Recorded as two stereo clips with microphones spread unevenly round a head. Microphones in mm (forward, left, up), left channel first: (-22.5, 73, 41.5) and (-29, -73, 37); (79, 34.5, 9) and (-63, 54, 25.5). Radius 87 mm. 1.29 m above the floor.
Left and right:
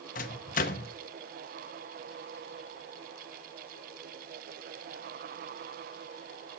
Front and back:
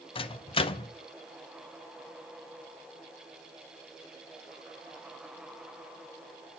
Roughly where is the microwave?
Ahead left.